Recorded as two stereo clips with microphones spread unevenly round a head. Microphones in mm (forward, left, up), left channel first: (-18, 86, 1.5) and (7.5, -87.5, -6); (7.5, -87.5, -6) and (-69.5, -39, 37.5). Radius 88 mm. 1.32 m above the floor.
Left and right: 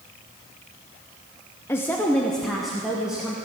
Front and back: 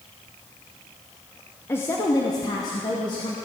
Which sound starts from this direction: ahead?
A woman speaking, at 1.7 s.